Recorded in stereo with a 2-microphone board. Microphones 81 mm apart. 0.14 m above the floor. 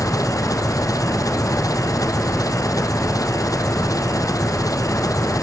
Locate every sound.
0.0 s an engine running: 45° left (ahead or behind)